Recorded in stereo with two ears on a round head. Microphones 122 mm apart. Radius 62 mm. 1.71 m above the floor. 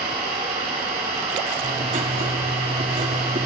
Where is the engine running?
50° right (ahead or behind), 6.5 m.